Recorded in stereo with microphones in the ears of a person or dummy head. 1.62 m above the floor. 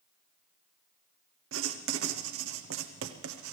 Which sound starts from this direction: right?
Writing, at 1.5 s.